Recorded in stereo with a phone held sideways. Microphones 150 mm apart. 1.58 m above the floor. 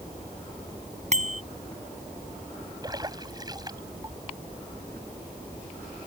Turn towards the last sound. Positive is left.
turn(degrees=-25)  # may be behind; listen again after turning